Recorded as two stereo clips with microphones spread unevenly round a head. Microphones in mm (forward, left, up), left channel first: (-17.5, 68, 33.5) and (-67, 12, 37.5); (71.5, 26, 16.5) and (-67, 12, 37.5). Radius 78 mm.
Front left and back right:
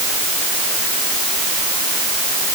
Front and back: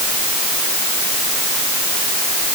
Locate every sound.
Only background noise.